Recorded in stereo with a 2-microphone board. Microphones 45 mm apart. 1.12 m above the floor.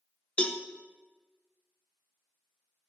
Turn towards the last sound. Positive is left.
turn(degrees=30)  # may be behind; listen again after turning